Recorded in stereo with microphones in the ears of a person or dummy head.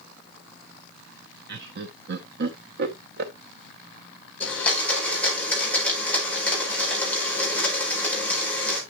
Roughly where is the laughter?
Right.